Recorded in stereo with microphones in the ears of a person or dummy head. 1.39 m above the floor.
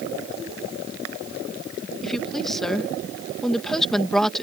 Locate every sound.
2.0 s a woman speaking: 5° left (ahead or behind)